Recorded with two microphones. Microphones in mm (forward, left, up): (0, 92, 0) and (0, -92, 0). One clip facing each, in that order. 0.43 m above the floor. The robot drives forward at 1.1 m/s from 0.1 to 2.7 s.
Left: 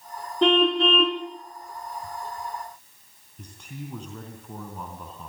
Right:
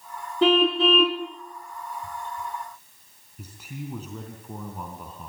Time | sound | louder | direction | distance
0.4 | a car horn | even | centre (ahead or behind) | 2.5 m
3.4 | a man speaking | right 2 dB | 5° right (ahead or behind) | 3.5 m